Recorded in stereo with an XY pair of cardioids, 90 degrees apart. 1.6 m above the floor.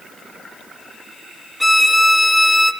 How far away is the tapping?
I don't hear tapping.